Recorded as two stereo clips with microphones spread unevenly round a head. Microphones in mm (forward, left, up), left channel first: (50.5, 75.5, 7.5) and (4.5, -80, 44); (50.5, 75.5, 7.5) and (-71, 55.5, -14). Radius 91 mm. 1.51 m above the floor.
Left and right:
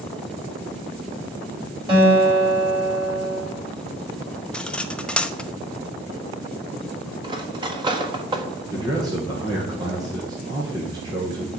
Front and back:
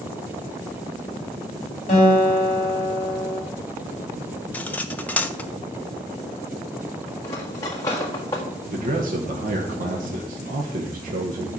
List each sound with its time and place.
1.9 s a guitar: 50° right, 6.5 m
4.5 s cutlery clinking: 30° right, 0.6 m
7.2 s cutlery clinking: 55° right, 1.4 m
8.7 s a man speaking: 175° right, 1.4 m